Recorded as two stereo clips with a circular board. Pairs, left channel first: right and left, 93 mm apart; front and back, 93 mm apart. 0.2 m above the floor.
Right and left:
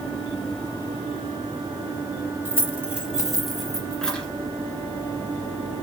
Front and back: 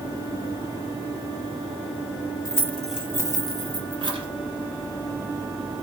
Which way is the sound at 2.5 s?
30° left.